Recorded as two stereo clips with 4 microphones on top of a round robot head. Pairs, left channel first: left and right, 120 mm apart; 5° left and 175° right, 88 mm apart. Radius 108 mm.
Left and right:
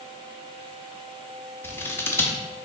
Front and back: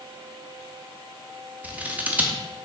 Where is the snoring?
No snoring in this recording.